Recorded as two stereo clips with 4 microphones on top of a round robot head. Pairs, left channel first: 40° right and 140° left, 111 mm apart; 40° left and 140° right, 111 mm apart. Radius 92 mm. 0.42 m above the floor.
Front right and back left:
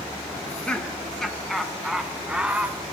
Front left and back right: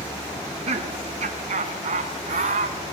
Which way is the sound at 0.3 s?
115° right.